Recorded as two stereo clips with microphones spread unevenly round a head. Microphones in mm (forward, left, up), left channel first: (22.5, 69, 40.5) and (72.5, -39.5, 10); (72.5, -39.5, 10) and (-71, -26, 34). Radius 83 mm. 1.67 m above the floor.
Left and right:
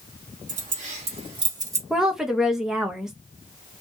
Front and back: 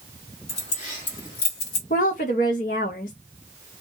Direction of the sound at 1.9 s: 30° left.